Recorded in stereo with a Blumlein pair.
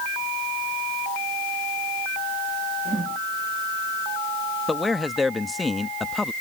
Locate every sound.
2.9 s a whoosh: 15° right
4.7 s a man speaking: 10° left